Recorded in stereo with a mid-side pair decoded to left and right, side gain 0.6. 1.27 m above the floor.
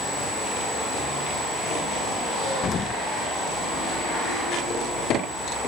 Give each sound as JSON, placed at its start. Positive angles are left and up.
{"t": 2.6, "sound": "an explosion", "azimuth_deg": 40}